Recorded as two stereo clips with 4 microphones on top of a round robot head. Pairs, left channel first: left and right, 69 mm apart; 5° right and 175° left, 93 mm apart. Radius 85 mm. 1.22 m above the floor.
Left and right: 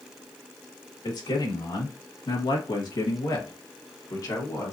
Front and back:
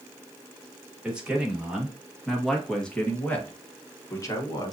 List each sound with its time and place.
1.0 s a man speaking: 95° left, 2.5 m; by 4.7 s 45° left, 1.5 m